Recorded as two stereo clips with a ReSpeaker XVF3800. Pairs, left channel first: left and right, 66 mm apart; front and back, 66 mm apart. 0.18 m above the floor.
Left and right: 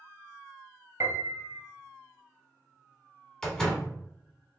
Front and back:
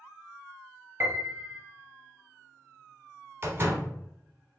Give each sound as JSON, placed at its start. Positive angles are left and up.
{"t": 1.0, "sound": "a piano", "azimuth_deg": -125, "distance_m": 0.7}
{"t": 3.4, "sound": "a door slam", "azimuth_deg": 160, "distance_m": 1.0}